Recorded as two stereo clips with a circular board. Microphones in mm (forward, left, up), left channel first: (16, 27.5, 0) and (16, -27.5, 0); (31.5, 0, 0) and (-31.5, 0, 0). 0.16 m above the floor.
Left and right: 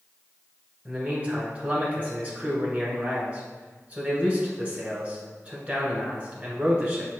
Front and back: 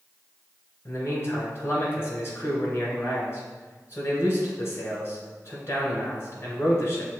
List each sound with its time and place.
0.8 s a man speaking: 35° right, 1.6 m